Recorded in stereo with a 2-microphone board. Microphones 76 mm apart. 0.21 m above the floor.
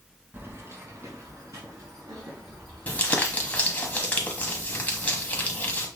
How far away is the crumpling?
About 0.9 m.